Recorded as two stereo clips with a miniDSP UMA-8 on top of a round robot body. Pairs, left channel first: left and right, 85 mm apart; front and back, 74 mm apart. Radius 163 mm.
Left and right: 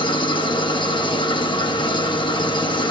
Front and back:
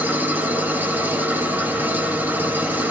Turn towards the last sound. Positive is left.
turn(degrees=115)